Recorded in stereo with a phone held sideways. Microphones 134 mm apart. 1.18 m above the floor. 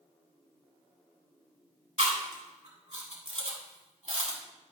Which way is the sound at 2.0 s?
60° right (ahead or behind).